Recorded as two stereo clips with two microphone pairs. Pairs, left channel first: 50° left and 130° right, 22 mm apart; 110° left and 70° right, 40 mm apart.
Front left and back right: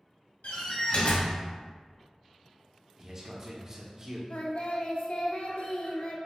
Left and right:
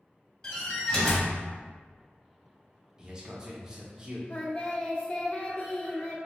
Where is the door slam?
40° left, 1.5 m.